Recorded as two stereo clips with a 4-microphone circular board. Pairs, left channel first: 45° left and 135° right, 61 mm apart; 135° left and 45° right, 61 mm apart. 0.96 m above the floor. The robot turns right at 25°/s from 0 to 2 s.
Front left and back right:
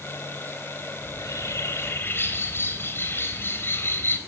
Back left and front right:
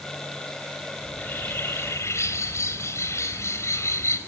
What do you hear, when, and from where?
1.0 s a bird: 70° left, 3 m; by 4.2 s 95° left, 3 m